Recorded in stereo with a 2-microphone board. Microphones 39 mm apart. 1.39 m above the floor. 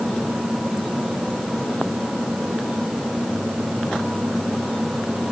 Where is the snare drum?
No snare drum in this recording.